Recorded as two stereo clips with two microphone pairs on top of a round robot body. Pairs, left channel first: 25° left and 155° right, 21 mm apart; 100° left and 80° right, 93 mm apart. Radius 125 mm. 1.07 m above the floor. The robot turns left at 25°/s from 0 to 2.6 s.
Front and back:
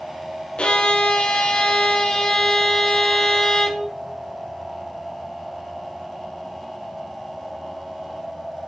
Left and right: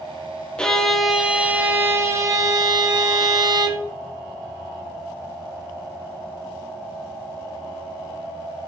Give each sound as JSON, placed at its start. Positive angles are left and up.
{"t": 0.6, "sound": "a violin", "azimuth_deg": 20, "distance_m": 0.8}